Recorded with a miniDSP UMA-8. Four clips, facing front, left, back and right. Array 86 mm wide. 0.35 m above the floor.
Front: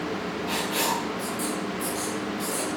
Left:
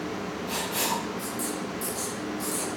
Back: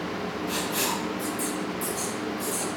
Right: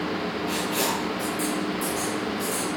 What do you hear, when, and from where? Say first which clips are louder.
0.5 s writing: right 2 dB, front 3 dB; 25° right, 9.5 m